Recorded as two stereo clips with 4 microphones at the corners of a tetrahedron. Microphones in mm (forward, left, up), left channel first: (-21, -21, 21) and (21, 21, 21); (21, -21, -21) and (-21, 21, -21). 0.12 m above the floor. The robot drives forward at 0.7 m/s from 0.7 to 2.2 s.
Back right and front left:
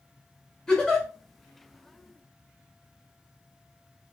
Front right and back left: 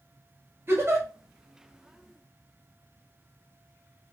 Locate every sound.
0.7 s a giggle: 150° left, 1.5 m; by 1.1 s 155° left, 1.7 m